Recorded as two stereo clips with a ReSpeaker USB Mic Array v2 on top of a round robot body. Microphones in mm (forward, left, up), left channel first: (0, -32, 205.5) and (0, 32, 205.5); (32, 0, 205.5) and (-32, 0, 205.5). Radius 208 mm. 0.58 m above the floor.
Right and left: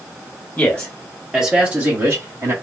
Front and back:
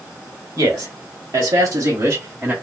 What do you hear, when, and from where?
0.6 s a man speaking: 150° right, 1.3 m; by 2.5 s 120° left, 1.5 m